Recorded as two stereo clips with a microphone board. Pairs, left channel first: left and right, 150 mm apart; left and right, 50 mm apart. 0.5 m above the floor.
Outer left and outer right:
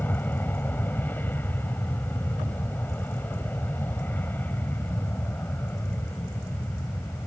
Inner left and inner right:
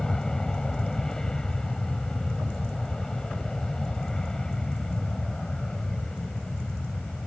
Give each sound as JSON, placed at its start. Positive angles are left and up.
{"t": 0.0, "sound": "an aircraft", "side_deg": 15}